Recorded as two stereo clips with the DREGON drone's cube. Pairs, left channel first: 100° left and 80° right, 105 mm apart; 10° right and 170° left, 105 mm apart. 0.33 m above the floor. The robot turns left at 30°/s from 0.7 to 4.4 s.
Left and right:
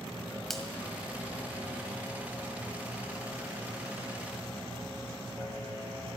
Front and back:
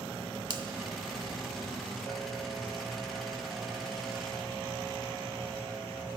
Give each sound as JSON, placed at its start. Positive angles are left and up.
{"t": 0.5, "sound": "a finger snap", "azimuth_deg": -175, "distance_m": 1.1}